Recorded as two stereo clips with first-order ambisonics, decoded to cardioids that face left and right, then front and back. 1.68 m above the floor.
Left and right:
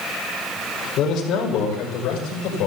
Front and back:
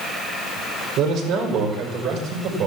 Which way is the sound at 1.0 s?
140° left.